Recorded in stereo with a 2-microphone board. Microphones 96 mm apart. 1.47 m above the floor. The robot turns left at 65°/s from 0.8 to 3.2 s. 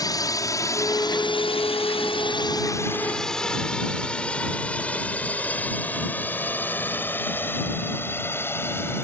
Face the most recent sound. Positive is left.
turn(degrees=25)  # may be behind; listen again after turning